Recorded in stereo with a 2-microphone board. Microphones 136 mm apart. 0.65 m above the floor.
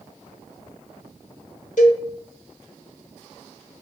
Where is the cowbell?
65° left (ahead or behind), 0.9 m.